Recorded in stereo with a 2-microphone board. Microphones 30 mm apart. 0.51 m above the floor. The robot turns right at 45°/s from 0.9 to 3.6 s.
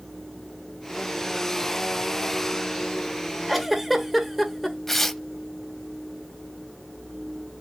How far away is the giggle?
About 1.4 m.